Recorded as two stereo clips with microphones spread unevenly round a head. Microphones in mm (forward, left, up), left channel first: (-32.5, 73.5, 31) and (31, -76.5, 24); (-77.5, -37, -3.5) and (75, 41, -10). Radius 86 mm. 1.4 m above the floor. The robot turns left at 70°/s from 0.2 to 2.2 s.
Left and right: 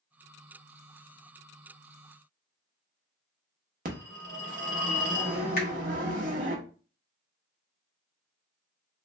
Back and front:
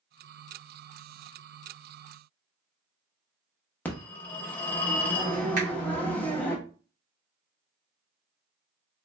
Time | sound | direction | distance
3.9 | a phone ringing | 80° right | 0.8 m
5.6 | a finger snap | 75° left | 1.6 m